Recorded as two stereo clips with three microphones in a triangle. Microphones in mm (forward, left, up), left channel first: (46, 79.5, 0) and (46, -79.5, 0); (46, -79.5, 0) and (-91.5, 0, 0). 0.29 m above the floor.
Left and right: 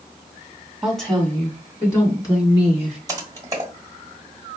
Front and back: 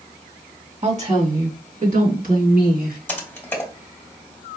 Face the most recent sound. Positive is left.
turn(degrees=-85)